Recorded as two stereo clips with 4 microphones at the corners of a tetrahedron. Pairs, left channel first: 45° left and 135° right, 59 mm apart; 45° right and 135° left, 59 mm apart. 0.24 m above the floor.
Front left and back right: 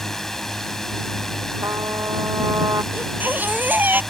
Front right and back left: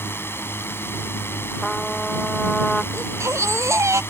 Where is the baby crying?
170° left.